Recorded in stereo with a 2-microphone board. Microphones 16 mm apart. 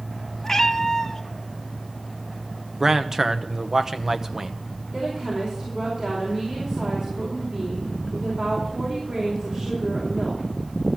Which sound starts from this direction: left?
A cat meowing, at 0.4 s.